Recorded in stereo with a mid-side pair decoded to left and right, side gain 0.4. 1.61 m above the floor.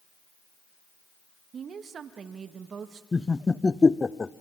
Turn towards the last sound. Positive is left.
turn(degrees=25)